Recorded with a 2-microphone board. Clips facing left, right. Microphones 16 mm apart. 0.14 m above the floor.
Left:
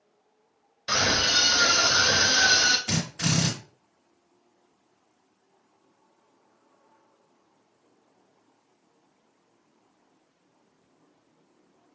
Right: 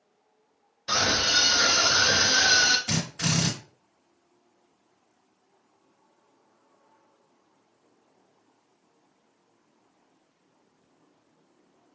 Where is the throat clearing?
No throat clearing in this recording.